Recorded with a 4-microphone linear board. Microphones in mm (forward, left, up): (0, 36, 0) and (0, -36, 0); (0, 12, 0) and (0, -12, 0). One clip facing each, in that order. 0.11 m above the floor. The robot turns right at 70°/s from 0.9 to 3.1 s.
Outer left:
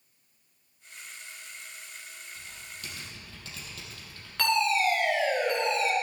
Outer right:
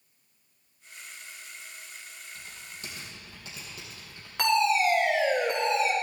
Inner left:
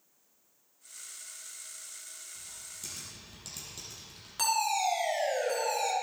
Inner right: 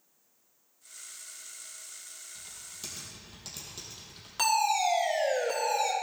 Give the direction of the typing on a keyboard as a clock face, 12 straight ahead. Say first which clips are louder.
Even, inner right 1 dB; 2 o'clock.